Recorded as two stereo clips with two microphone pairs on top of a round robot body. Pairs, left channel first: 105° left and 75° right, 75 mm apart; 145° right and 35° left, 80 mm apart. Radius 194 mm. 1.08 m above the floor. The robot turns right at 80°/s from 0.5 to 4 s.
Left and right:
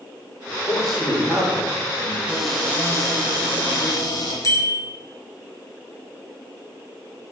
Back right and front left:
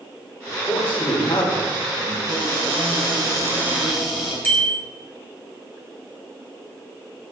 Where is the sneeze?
I don't hear a sneeze.